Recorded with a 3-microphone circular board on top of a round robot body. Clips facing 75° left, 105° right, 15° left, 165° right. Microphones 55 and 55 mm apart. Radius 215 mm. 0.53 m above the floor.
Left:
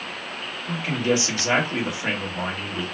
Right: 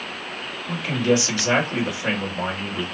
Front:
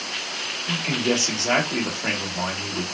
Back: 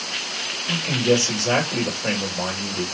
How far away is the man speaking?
About 1.8 m.